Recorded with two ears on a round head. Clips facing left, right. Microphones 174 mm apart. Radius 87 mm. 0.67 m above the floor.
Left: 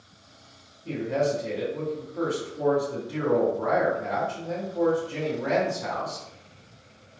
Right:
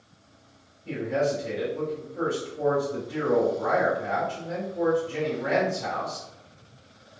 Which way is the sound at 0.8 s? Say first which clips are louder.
Even; 55° left (ahead or behind).